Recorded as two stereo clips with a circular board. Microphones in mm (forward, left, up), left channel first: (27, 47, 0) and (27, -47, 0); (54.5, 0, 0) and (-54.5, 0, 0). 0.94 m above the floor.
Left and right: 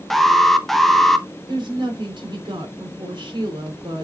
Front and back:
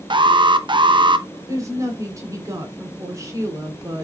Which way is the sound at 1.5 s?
120° right.